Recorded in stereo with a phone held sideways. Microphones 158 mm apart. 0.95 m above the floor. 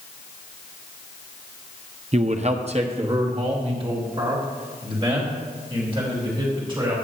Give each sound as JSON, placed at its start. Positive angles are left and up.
{"t": 2.1, "sound": "a man speaking", "side_deg": -45, "distance_m": 0.5}